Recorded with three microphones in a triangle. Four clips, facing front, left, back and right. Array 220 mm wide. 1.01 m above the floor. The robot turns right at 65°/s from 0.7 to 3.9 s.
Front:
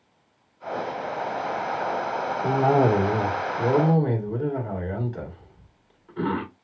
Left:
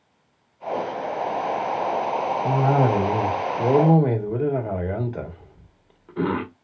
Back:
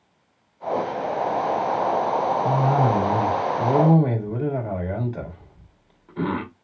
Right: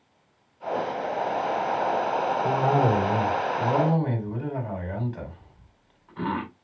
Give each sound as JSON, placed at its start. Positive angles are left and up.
{"t": 2.4, "sound": "a cough", "azimuth_deg": 0, "distance_m": 2.0}